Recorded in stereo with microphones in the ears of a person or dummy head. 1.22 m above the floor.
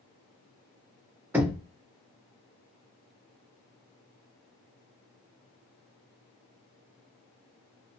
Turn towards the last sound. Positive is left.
turn(degrees=-15)  # may be behind; listen again after turning